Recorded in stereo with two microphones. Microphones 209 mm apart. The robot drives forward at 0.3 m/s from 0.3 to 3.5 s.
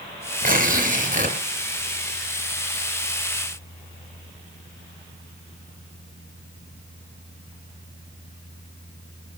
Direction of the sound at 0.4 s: 45° right (ahead or behind).